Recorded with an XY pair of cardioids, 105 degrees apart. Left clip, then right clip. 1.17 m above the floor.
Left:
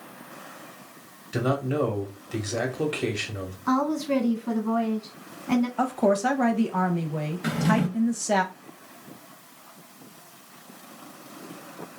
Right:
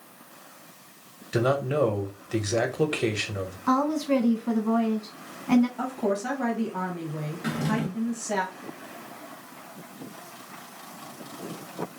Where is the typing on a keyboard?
I don't hear typing on a keyboard.